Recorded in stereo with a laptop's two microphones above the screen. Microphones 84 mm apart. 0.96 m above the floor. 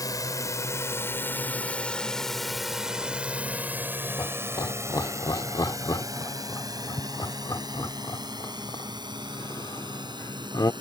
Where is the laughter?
50° left (ahead or behind).